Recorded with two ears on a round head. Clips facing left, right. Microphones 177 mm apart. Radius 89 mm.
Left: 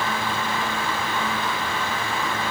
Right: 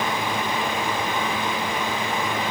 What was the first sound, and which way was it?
Only background noise.